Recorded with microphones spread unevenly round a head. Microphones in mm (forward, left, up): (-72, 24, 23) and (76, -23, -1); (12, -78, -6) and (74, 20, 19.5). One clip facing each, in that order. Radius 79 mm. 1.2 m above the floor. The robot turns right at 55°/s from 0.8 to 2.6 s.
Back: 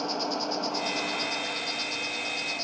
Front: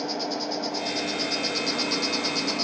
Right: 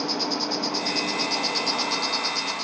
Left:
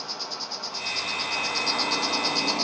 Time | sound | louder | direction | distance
0.0 | an insect | front 1 dB, right 10 dB | 95° right | 1.1 m